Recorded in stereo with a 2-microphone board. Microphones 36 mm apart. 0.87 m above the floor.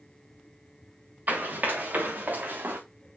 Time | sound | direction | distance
1.3 | running footsteps | 50° right (ahead or behind) | 3.5 m